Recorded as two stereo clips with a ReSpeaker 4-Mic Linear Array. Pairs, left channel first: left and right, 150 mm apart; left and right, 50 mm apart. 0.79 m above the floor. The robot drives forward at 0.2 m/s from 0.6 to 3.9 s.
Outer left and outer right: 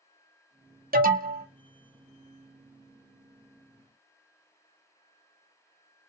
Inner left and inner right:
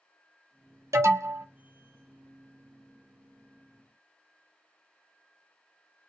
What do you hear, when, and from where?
0.9 s an alarm: 70° right (ahead or behind), 0.6 m